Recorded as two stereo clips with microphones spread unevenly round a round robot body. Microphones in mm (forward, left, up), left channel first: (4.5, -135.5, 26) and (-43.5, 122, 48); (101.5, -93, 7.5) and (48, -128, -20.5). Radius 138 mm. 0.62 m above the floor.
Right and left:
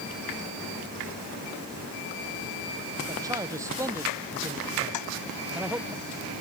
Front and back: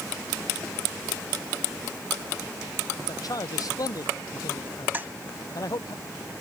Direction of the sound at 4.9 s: 85° right.